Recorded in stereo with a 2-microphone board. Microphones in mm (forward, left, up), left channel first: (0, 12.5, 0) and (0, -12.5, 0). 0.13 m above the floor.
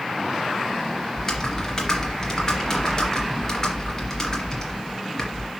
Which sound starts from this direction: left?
Typing on a keyboard, at 1.1 s.